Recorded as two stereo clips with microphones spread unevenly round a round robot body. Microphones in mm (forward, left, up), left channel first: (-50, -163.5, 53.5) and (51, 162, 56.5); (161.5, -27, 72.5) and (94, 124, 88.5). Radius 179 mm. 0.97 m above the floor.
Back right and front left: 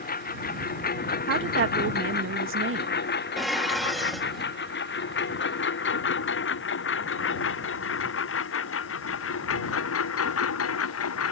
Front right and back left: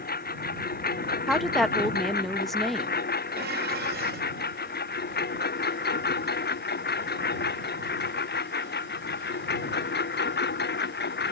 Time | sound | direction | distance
0.0 | a lawn mower | 40° right | ?
1.3 | a woman speaking | 20° left | ?
3.4 | dishes clattering | 165° left | ?